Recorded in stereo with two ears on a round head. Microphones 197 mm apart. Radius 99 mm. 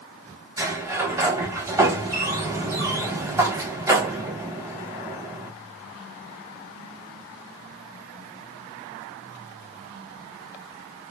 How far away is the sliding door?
About 1.2 m.